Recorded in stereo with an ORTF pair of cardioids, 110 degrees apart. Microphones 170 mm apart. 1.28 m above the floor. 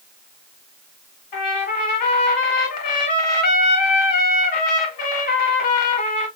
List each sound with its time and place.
1.3 s a trumpet: 65° left, 1.7 m